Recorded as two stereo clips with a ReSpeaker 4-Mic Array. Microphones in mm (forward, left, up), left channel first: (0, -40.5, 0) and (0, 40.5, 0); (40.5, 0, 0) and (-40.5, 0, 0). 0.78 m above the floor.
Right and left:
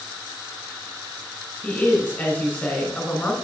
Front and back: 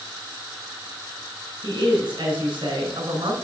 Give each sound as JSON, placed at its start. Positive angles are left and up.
{"t": 1.6, "sound": "a woman speaking", "azimuth_deg": -160, "distance_m": 3.0}